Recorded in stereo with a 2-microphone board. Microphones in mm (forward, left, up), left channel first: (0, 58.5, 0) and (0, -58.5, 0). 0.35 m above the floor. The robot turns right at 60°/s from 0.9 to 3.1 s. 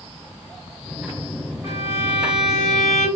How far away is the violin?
About 1.4 m.